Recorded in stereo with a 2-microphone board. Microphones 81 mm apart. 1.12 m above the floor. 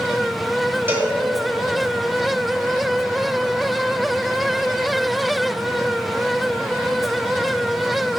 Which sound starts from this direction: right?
A cowbell, at 0.9 s.